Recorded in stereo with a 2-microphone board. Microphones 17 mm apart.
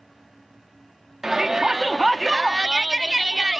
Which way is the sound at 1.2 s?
25° right (ahead or behind).